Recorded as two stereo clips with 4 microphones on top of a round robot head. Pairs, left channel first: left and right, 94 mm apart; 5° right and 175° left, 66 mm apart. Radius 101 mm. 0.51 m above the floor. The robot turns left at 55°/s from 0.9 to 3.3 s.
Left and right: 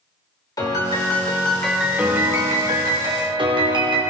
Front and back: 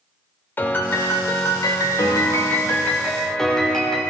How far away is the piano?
About 2.5 m.